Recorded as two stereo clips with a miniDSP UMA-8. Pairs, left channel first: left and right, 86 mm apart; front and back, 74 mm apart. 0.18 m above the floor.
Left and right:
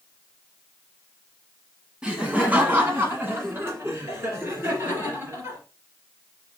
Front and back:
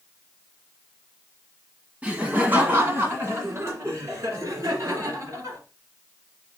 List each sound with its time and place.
2.0 s laughter: 150° right, 1.2 m; by 5.6 s 140° right, 3 m